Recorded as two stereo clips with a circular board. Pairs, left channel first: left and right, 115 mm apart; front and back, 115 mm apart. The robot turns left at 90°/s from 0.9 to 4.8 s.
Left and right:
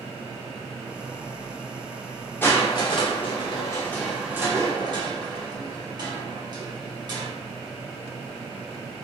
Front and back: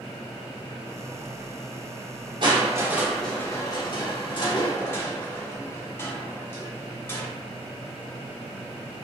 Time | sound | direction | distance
2.4 | crushing | 155° left | 0.8 m